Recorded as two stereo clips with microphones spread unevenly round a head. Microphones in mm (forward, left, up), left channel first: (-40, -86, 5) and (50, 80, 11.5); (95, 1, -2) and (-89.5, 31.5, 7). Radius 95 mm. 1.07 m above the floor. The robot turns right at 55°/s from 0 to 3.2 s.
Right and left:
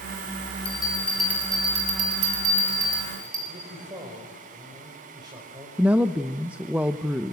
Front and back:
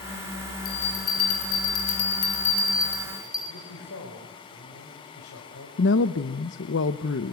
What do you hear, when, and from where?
0.7 s a bell: 55° right, 7 m; by 3.4 s 85° left, 7 m
3.5 s a man speaking: 10° right, 4.5 m
5.8 s a woman speaking: 20° right, 0.8 m